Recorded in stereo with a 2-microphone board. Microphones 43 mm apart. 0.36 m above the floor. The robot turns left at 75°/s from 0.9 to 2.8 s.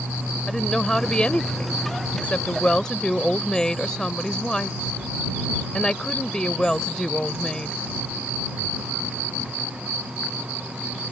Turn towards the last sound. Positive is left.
turn(degrees=25)